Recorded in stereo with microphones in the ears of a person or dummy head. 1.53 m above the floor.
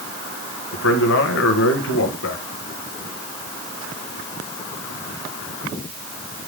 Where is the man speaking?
65° left (ahead or behind), 1.4 m.